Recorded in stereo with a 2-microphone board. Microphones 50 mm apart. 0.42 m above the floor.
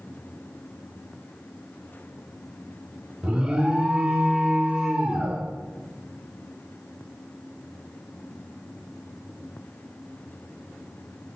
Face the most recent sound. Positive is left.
turn(degrees=-20)  # may be behind; listen again after turning